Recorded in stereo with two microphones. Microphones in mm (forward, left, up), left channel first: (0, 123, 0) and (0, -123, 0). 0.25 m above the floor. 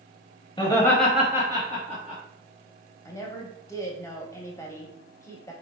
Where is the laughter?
20° left (ahead or behind), 1.0 m; by 2.2 s 30° right (ahead or behind), 1.3 m.